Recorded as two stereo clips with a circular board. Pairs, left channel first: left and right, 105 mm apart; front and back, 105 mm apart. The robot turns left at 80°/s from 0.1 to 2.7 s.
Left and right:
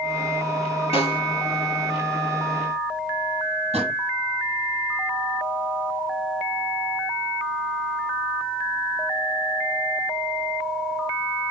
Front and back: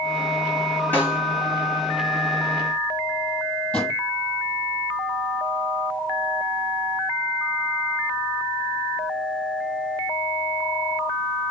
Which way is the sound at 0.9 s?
70° left.